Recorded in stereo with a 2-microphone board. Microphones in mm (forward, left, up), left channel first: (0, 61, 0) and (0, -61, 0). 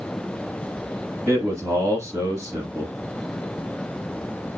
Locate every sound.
1.3 s a man speaking: 25° right (ahead or behind), 1.1 m